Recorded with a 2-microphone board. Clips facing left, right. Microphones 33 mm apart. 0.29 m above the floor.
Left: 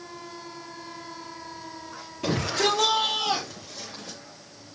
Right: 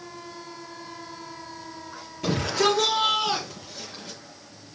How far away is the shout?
About 6 m.